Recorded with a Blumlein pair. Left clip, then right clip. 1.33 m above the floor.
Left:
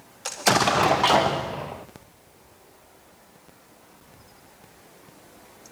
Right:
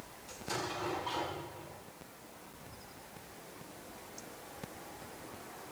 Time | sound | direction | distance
0.2 | an explosion | 45° left | 0.6 m